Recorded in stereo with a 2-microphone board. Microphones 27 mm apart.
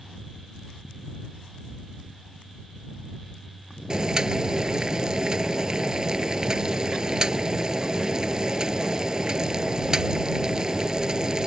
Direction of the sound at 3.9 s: 30° right (ahead or behind).